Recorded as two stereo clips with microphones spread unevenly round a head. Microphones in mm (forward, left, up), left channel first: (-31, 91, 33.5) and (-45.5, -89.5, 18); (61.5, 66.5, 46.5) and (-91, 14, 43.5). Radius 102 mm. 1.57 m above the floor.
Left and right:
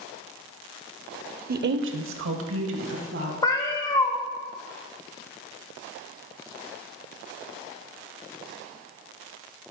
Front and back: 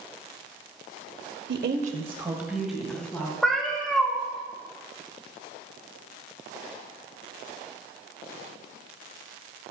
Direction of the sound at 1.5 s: 135° right.